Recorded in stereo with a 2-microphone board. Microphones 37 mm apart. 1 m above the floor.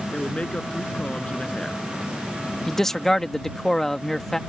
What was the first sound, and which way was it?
A man speaking, 30° left (ahead or behind).